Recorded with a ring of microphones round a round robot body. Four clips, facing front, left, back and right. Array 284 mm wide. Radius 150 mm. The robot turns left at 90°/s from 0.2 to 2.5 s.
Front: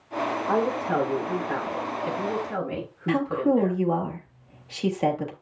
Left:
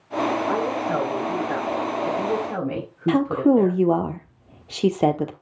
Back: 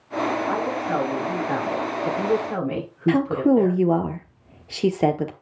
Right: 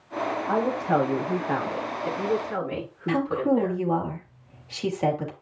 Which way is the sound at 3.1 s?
125° left.